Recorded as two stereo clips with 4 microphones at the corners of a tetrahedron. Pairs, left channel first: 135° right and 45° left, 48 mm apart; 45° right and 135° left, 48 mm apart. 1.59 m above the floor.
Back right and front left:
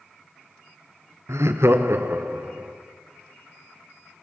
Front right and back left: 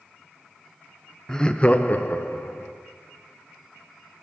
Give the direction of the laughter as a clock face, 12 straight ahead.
11 o'clock.